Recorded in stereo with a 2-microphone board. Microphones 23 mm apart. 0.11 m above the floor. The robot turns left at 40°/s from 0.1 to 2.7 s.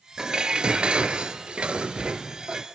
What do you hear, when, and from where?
0.2 s dishes clattering: 40° right, 1.1 m; by 2.7 s 140° right, 1.1 m